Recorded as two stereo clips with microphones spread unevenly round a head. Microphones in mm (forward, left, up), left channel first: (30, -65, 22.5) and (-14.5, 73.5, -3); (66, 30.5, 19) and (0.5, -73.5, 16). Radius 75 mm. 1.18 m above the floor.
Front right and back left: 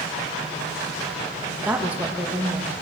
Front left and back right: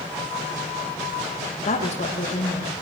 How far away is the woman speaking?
About 1.7 m.